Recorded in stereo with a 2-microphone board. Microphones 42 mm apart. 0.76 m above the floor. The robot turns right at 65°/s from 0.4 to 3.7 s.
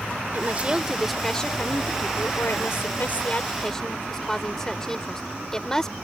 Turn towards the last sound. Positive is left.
turn(degrees=170)